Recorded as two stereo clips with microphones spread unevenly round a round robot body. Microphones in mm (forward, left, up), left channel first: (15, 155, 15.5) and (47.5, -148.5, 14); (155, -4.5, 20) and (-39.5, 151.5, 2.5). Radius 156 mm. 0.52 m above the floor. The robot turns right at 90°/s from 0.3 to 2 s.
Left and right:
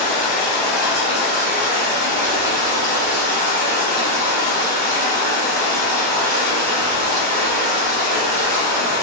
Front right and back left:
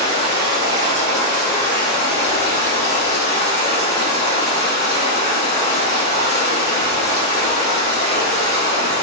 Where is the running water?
145° left, 1.6 m; by 9.0 s 60° right, 1.6 m.